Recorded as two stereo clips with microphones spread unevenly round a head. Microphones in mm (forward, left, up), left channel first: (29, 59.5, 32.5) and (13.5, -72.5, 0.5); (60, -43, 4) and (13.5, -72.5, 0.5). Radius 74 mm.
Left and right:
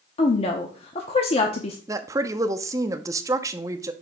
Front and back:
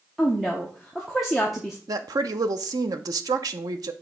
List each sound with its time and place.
0.2 s a woman speaking: 130° left, 0.8 m
1.9 s a woman speaking: 160° right, 0.6 m